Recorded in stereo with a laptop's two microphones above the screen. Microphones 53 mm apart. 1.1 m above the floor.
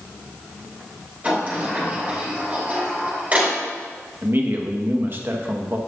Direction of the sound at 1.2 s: 30° right (ahead or behind).